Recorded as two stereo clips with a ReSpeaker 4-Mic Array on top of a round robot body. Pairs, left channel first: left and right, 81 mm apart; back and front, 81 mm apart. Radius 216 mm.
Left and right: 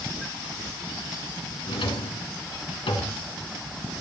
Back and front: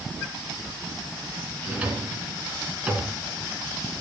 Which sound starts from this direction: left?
A drawer, at 1.6 s.